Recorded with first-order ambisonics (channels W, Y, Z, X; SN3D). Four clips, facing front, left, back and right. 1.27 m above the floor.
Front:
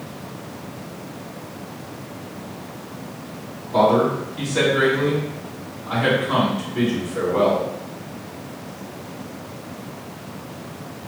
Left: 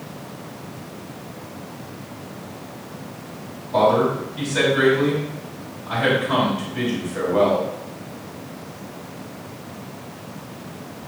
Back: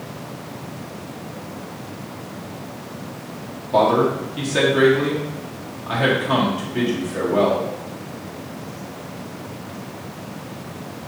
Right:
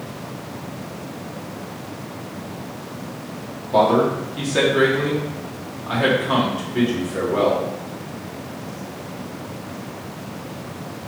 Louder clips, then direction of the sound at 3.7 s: Right 1 dB, even; 140° right.